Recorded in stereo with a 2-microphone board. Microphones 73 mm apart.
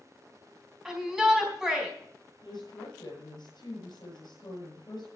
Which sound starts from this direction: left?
A woman speaking, at 2.4 s.